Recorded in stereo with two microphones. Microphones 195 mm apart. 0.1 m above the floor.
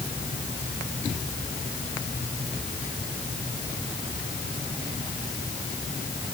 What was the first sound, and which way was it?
Only background noise.